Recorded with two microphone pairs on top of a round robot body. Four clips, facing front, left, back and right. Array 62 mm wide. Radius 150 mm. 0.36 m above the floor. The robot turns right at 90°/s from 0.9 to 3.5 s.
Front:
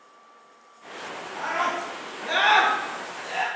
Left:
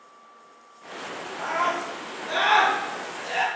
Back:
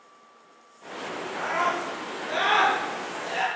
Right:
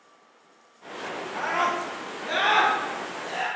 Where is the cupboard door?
No cupboard door in this recording.